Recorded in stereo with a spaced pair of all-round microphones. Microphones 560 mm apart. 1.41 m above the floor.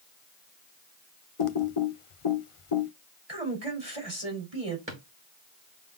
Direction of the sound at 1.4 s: 65° left (ahead or behind).